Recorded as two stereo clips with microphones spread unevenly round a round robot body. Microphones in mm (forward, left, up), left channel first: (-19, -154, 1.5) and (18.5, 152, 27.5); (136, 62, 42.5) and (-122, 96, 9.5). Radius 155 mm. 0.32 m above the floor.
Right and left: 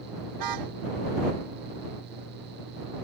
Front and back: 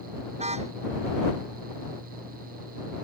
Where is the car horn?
105° left.